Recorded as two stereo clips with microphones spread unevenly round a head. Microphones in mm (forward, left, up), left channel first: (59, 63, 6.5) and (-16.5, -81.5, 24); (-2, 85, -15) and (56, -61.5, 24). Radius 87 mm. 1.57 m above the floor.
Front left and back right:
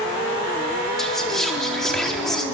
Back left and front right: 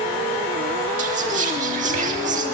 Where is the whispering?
25° right, 4 m.